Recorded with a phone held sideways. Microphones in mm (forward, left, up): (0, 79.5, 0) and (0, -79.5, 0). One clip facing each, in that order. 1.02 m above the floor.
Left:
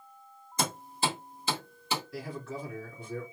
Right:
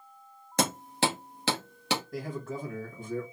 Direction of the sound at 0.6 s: 80° right.